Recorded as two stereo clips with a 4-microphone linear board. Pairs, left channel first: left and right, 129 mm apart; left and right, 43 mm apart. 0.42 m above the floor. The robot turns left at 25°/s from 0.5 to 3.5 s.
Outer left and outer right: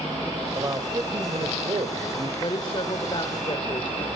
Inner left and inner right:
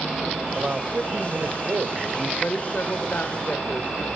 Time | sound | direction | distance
0.6 | a man speaking | 40° right | 1.6 m
2.4 | a woman speaking | 45° left (ahead or behind) | 1.3 m